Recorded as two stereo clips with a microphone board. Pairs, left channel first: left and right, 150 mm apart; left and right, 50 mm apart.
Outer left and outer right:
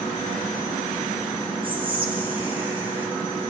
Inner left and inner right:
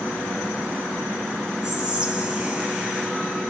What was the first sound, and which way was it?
Whispering, 10° right (ahead or behind).